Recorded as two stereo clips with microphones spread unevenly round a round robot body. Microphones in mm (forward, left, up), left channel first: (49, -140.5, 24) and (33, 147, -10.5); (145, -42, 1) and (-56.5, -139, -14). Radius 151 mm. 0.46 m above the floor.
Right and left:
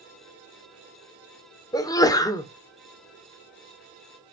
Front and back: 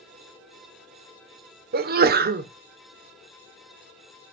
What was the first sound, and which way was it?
A sneeze, 170° right.